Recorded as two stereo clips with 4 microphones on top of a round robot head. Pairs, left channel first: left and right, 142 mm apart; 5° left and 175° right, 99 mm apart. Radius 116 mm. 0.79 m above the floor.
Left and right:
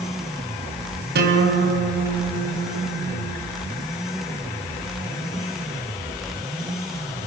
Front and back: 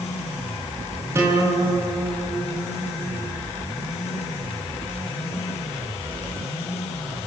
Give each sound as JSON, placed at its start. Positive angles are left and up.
{"t": 1.1, "sound": "a guitar", "azimuth_deg": -105, "distance_m": 5.0}